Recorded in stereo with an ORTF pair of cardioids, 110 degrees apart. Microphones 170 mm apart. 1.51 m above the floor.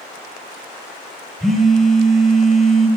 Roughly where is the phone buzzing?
Ahead.